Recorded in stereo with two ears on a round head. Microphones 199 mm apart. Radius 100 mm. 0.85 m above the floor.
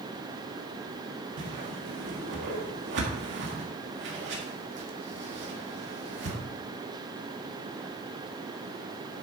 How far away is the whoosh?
About 1.9 m.